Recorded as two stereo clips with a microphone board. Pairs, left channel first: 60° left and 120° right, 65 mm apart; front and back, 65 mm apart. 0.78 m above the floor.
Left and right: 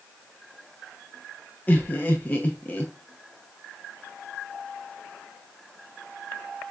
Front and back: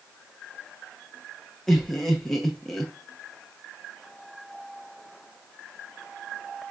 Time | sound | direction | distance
1.7 | laughter | 75° left | 0.6 m